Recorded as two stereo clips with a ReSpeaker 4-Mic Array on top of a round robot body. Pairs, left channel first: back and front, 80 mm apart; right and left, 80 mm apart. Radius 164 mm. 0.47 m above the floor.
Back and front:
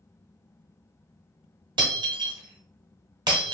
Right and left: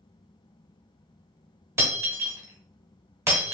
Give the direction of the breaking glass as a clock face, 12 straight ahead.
11 o'clock.